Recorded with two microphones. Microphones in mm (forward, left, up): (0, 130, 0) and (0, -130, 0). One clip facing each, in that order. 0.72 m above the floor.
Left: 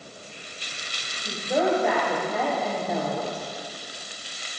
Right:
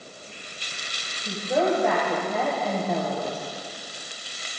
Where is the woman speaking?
Centre (ahead or behind), 3.5 m.